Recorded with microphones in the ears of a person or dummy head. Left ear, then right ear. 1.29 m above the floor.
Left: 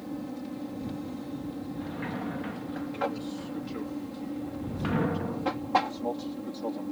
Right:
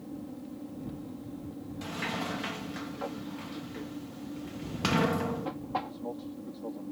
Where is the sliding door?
85° right.